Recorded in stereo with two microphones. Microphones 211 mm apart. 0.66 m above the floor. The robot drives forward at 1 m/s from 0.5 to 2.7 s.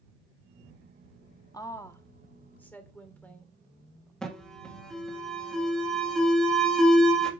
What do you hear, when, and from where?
1.5 s a woman speaking: 15° left (ahead or behind), 0.8 m; by 4.1 s 5° left (ahead or behind), 1.8 m
4.2 s an alarm: 5° left (ahead or behind), 1.7 m